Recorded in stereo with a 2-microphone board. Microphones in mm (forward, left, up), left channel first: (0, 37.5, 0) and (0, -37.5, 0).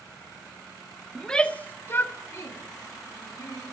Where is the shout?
Centre (ahead or behind), 0.7 m; by 3.6 s 50° left (ahead or behind), 2.5 m.